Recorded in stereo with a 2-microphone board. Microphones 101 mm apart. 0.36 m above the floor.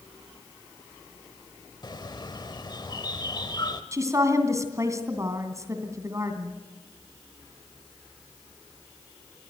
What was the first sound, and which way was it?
A bird, 40° left (ahead or behind).